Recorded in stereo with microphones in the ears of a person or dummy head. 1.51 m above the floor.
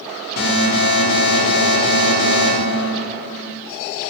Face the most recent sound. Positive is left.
turn(degrees=65)  # may be behind; listen again after turning